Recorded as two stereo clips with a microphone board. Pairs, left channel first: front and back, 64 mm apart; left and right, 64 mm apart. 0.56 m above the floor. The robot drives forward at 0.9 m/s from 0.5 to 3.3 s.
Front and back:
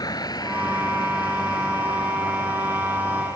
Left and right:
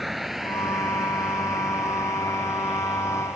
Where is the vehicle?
Straight ahead; by 3.4 s 10° right.